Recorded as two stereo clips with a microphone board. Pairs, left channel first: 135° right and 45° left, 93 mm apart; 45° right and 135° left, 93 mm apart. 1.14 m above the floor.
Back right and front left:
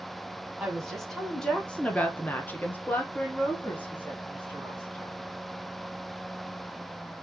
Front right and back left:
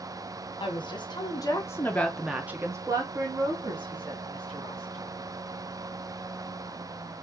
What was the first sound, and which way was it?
A woman speaking, 45° right.